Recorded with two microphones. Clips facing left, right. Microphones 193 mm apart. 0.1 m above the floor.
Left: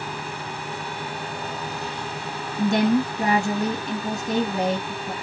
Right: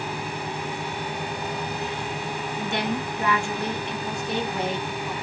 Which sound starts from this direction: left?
A woman speaking, at 2.6 s.